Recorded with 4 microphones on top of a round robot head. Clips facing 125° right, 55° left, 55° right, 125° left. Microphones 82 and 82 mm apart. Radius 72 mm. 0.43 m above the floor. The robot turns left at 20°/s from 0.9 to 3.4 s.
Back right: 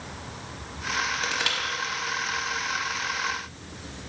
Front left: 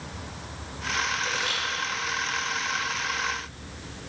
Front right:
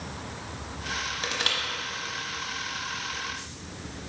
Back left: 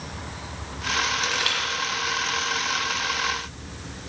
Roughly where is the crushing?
Right.